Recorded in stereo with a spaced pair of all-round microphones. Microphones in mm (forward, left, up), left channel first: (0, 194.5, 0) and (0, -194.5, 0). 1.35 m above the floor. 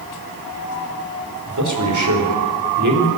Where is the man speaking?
50° right (ahead or behind), 5 m.